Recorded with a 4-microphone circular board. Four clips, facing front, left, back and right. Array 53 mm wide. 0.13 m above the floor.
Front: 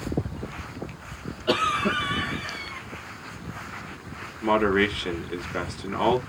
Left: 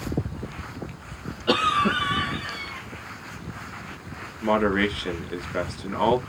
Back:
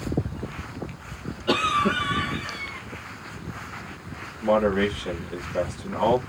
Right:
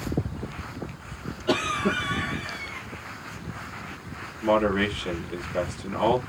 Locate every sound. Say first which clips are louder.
1.5 s a cough: left 4 dB, back 1 dB; 70° left, 1.7 m
4.4 s a man speaking: even, even; 50° left, 1.6 m